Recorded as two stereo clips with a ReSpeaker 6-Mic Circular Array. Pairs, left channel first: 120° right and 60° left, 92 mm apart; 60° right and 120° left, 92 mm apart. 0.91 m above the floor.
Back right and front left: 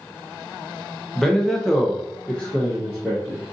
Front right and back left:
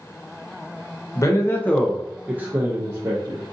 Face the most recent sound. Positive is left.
turn(degrees=160)